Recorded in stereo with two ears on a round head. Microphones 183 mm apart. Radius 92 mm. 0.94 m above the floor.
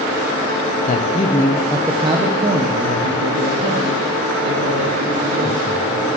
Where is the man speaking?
40° left (ahead or behind), 0.6 m; by 6.1 s 65° right (ahead or behind), 2.5 m.